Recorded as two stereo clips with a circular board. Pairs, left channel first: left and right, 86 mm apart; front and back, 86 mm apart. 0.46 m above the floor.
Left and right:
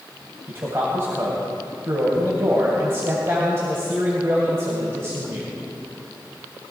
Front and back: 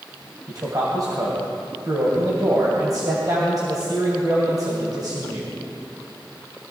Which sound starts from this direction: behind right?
A man speaking, at 0.5 s.